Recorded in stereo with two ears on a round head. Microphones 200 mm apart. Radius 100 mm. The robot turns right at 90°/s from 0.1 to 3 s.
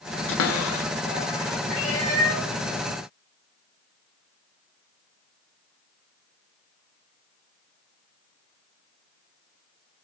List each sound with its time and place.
0.3 s a cupboard door: 55° left (ahead or behind), 0.8 m; by 1.6 s 5° left (ahead or behind), 0.8 m
1.7 s a cat meowing: 140° left, 3.5 m; by 2.5 s 150° right, 3.5 m